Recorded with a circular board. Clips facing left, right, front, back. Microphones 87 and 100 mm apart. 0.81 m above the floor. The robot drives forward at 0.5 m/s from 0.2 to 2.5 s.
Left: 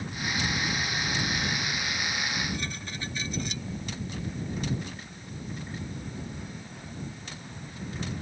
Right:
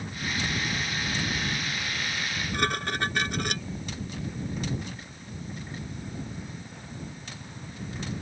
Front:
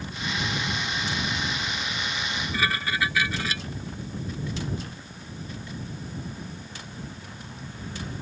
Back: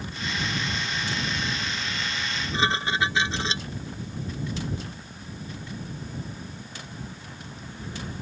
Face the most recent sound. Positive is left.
turn(degrees=-115)